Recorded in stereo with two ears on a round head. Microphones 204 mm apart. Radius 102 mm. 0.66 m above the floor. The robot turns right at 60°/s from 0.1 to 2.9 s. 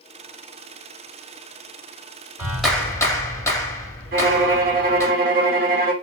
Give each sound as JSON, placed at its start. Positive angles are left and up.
{"t": 2.4, "sound": "a clap", "azimuth_deg": -15, "distance_m": 0.8}
{"t": 4.1, "sound": "a violin", "side_deg": -40, "distance_m": 0.7}